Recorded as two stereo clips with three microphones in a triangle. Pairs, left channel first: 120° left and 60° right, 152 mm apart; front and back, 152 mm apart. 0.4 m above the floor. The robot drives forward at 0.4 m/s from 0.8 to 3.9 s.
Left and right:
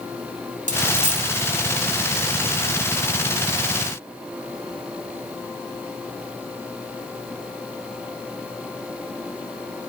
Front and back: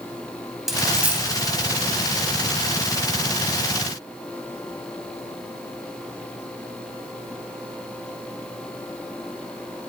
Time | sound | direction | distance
0.7 | a dropped coin | 90° right | 1.0 m